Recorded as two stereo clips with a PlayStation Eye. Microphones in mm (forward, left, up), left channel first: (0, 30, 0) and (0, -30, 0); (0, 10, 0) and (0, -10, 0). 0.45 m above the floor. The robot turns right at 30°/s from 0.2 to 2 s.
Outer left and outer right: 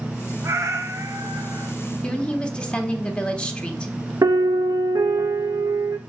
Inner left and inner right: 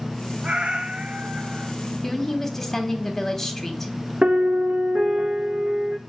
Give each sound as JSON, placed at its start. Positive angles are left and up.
{"t": 0.4, "sound": "a cat meowing", "azimuth_deg": -120, "distance_m": 0.9}
{"t": 2.0, "sound": "a woman speaking", "side_deg": 20, "distance_m": 1.1}
{"t": 4.2, "sound": "a piano", "side_deg": -80, "distance_m": 1.0}